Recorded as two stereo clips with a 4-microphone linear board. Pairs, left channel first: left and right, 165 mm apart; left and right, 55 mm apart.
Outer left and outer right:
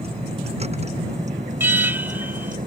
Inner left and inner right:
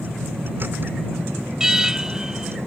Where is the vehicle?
35° right (ahead or behind); by 2.7 s 55° right (ahead or behind).